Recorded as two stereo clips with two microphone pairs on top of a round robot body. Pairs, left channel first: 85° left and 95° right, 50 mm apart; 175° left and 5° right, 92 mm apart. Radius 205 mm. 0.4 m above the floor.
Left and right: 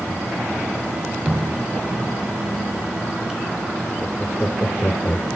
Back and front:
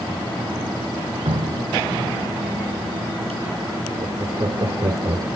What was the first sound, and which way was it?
Dripping, 15° right.